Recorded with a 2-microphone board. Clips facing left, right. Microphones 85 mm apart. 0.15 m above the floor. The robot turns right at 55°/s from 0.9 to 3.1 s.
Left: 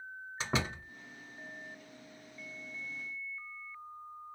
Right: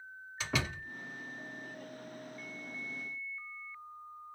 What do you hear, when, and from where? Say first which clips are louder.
0.4 s a door slam: left 1 dB; 30° left (ahead or behind), 1.4 m